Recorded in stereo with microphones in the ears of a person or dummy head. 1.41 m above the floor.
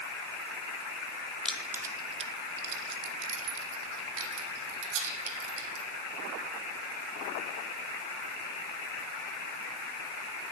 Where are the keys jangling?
Centre (ahead or behind), 0.8 m; by 5.8 s 70° right (ahead or behind), 2.5 m.